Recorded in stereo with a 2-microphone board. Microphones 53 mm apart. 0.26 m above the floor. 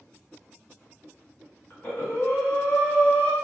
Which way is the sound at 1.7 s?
40° left (ahead or behind).